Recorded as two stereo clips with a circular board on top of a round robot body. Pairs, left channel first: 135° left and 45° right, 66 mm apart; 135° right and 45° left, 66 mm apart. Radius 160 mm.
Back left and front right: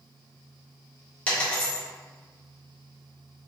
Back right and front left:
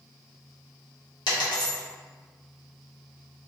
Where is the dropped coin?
155° right, 1.0 m.